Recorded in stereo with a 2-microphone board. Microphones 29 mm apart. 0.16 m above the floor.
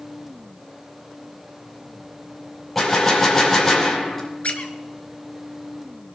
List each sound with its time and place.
2.8 s a gunshot: 10° left (ahead or behind), 6 m
4.4 s a squeak: 50° left (ahead or behind), 1.4 m